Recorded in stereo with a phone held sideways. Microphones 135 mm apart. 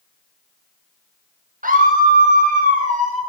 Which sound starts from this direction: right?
A scream, at 1.6 s.